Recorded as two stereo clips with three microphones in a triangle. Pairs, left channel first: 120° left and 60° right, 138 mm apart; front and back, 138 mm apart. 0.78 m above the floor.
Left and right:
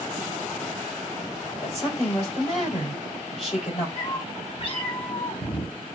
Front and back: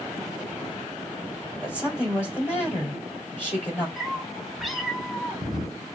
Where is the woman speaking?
75° left, 3.5 m.